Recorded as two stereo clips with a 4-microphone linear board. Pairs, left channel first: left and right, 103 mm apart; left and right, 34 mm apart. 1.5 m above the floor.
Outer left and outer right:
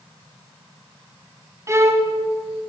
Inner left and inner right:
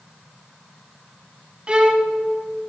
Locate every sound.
1.7 s a violin: 25° right (ahead or behind), 1.1 m